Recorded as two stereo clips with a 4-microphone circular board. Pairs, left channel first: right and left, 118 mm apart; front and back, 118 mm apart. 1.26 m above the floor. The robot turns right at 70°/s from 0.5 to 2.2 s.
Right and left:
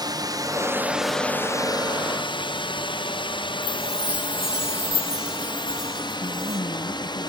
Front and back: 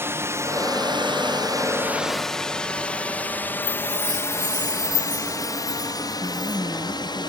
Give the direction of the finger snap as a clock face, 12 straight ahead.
No finger snap in this recording.